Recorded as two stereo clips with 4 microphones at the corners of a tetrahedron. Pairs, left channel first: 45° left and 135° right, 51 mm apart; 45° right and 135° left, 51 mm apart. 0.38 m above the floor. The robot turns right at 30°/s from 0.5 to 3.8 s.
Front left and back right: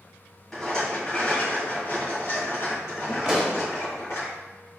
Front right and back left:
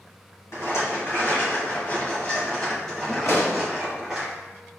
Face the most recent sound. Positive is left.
turn(degrees=-35)